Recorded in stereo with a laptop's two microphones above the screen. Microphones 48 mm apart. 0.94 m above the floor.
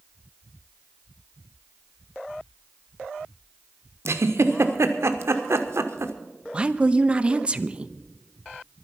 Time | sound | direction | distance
4.0 | a giggle | 75° right (ahead or behind) | 1.2 m
6.5 | a woman speaking | 25° right (ahead or behind) | 0.8 m